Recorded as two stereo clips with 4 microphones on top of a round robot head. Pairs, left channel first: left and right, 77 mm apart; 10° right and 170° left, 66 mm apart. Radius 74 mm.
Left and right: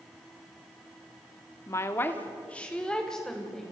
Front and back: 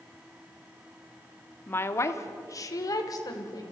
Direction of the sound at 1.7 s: 40° left.